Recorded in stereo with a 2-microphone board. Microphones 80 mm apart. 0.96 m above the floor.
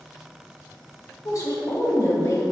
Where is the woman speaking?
40° left (ahead or behind), 0.6 m.